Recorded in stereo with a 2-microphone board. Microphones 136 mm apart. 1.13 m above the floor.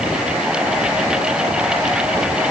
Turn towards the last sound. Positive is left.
No sound to turn to.